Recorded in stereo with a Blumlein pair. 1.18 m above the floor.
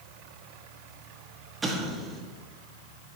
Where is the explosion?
15° right, 1.0 m.